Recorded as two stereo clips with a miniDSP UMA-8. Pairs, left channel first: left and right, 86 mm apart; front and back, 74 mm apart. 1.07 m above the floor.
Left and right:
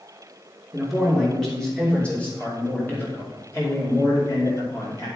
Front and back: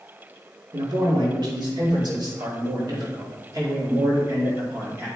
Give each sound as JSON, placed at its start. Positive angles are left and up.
{"t": 0.7, "sound": "a man speaking", "azimuth_deg": 180, "distance_m": 3.0}